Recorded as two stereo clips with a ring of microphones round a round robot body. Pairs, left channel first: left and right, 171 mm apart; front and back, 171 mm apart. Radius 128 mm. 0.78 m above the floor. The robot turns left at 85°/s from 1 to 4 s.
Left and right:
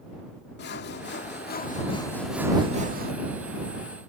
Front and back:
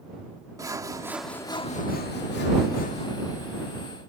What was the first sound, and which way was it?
Sawing, 110° left.